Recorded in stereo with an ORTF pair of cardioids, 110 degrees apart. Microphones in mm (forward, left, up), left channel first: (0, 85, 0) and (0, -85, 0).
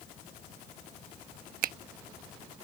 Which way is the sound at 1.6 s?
55° right.